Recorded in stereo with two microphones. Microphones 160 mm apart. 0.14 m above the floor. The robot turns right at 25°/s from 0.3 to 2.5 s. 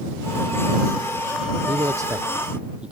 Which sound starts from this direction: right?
A man speaking, at 1.7 s.